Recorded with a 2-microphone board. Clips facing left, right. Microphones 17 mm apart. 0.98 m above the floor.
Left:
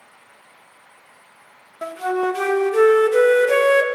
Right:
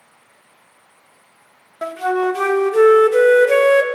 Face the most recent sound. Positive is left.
turn(degrees=-20)  # may be behind; listen again after turning